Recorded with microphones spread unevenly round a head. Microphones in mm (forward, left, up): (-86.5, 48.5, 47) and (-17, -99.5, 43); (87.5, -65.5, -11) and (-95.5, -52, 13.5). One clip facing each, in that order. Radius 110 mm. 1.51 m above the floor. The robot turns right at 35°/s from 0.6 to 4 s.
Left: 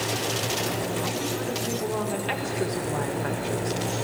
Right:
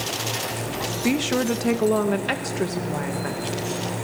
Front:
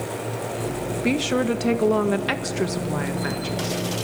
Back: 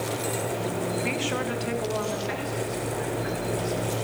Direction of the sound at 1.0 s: 55° right.